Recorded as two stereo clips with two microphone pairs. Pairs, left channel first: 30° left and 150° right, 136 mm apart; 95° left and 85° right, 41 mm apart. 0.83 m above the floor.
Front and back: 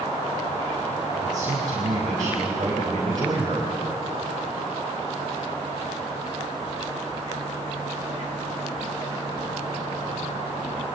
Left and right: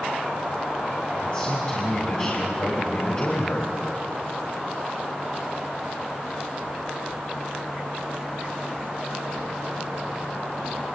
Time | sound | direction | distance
1.2 | a man speaking | 155° left | 4.5 m